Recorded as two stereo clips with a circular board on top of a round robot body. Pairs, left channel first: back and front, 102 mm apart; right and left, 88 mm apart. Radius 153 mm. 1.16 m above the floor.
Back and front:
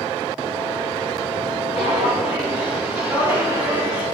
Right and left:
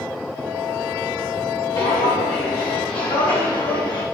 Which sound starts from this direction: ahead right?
Footsteps, at 1.8 s.